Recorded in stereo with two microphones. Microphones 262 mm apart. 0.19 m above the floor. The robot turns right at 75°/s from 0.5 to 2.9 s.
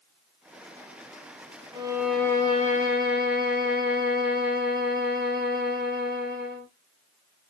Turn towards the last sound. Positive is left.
turn(degrees=60)